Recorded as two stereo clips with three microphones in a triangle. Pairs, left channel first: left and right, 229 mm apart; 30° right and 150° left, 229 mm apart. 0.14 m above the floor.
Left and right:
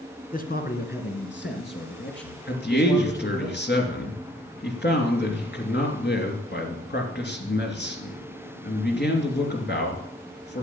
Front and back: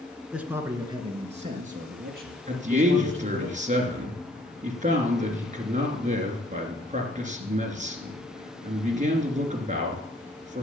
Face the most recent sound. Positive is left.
turn(degrees=105)